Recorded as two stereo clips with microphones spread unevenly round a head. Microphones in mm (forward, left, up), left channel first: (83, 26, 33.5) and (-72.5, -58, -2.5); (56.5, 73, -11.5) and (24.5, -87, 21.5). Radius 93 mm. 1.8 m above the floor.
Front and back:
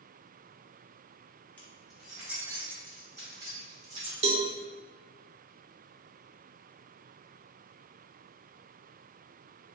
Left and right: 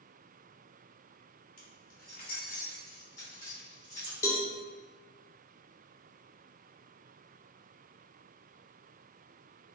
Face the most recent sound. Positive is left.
turn(degrees=160)